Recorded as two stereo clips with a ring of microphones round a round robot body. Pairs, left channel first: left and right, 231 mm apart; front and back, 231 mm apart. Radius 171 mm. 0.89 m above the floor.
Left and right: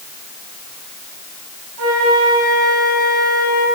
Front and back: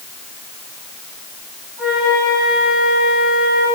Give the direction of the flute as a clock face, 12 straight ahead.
3 o'clock.